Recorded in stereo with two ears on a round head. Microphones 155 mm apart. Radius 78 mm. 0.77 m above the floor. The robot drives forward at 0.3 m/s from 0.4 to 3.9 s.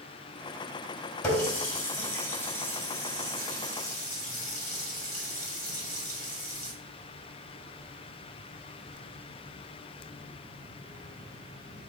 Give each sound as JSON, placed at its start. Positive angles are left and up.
{"t": 1.2, "sound": "a running tap", "side_deg": 20, "distance_m": 1.7}